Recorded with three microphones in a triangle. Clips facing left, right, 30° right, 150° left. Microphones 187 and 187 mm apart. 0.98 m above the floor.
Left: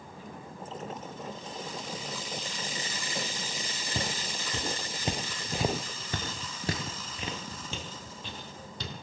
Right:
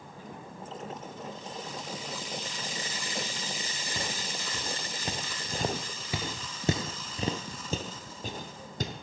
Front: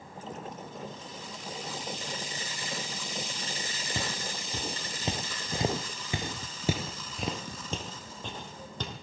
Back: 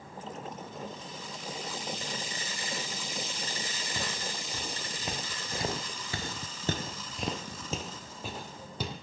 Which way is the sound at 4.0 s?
35° left.